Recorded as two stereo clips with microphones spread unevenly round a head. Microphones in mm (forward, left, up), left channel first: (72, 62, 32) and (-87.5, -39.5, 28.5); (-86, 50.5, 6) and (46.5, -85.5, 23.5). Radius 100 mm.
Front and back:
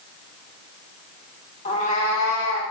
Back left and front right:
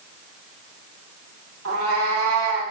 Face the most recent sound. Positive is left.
turn(degrees=-25)